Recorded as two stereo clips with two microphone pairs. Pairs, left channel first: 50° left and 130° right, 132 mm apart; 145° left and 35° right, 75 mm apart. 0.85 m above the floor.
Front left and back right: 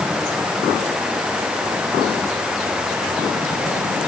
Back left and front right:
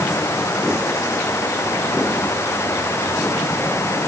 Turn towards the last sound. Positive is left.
No sound to turn to.